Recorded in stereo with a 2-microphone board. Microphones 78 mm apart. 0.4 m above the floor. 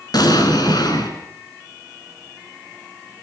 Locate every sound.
0.1 s an explosion: 65° left (ahead or behind), 3 m